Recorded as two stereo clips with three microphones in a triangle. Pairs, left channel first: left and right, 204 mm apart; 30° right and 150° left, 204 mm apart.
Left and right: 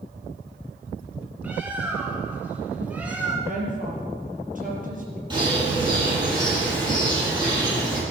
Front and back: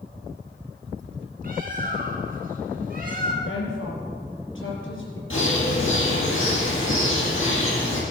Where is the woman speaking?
40° right, 4.5 m.